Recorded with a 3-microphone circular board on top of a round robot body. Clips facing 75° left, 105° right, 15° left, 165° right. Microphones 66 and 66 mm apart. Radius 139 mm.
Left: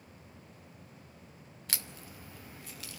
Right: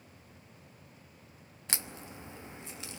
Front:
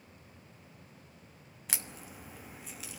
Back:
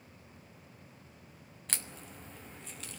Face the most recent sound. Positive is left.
turn(degrees=-65)